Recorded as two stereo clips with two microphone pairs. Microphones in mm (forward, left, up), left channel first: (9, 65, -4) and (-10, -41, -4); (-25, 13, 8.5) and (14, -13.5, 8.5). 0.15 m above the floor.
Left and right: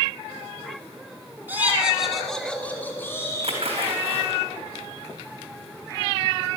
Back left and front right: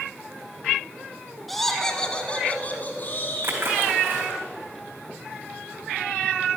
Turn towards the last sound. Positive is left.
turn(degrees=-70)